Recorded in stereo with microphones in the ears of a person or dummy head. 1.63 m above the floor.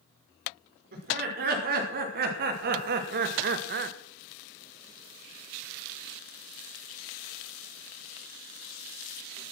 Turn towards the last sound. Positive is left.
turn(degrees=-60)  # may be behind; listen again after turning